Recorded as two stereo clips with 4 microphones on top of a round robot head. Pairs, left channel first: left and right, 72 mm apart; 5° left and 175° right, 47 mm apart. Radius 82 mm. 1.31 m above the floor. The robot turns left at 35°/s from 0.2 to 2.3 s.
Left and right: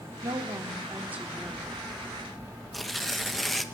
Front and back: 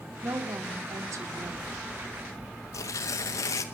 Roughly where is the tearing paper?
Ahead.